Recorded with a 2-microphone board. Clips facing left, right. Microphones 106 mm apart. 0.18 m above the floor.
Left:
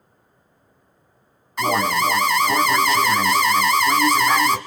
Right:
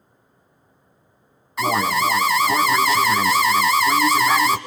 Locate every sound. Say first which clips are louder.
1.6 s an alarm: even; centre (ahead or behind), 1.4 m